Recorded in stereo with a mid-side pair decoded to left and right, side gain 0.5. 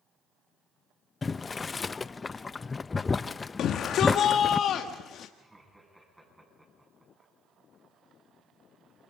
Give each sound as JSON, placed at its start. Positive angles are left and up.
{"t": 1.2, "sound": "boiling", "azimuth_deg": 30, "distance_m": 0.5}
{"t": 3.6, "sound": "a shout", "azimuth_deg": 60, "distance_m": 1.4}
{"t": 5.4, "sound": "laughter", "azimuth_deg": -10, "distance_m": 10.0}